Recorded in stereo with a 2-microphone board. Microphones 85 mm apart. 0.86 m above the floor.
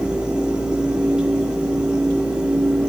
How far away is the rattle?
I don't hear a rattle.